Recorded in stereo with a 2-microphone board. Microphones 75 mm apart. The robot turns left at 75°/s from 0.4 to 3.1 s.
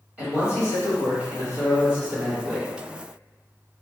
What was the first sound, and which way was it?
A man speaking, 30° right.